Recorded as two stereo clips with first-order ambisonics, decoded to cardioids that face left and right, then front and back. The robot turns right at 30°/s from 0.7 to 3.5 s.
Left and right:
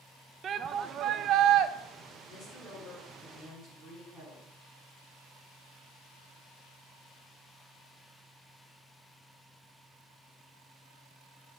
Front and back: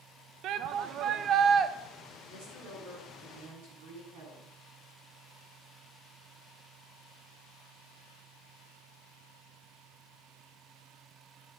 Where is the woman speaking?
145° left, 8 m; by 4.5 s 175° right, 8 m.